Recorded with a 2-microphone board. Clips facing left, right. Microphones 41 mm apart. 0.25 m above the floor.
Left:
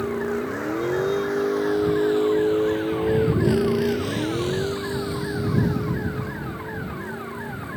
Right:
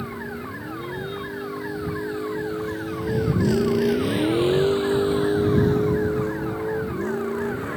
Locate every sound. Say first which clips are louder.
0.0 s a vehicle: left 7 dB; 85° left; by 7.8 s 60° right (ahead or behind)